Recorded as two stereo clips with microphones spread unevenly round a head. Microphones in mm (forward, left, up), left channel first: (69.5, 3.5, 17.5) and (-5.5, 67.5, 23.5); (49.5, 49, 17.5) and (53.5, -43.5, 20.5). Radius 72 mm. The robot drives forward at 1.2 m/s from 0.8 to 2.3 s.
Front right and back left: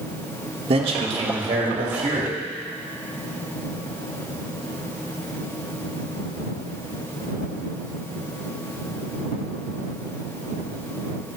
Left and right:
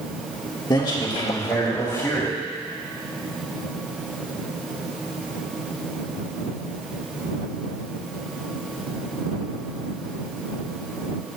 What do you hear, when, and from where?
0.7 s a man speaking: 135° left, 1.3 m; by 2.4 s 165° left, 3 m